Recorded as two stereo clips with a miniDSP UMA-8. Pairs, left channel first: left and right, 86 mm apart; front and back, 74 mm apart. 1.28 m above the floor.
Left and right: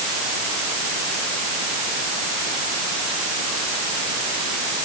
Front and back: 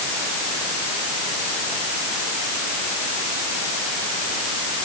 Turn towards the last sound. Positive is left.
No sound to turn to.